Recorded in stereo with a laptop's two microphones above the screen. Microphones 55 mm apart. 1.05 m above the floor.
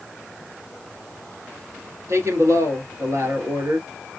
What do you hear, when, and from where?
2.1 s a woman speaking: 70° right (ahead or behind), 2.5 m